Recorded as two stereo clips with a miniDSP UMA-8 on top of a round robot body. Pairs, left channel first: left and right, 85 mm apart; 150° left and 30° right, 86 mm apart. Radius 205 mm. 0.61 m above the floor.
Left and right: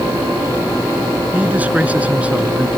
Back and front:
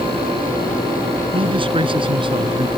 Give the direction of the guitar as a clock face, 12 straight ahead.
No guitar in this recording.